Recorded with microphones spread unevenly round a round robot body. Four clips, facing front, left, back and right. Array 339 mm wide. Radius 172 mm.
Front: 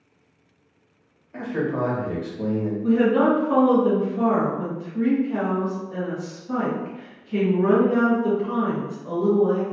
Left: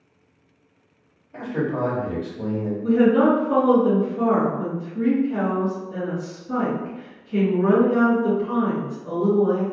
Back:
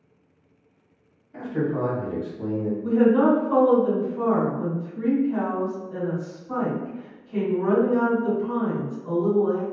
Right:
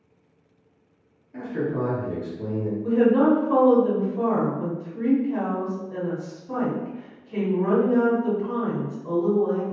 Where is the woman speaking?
50° right, 1.6 m.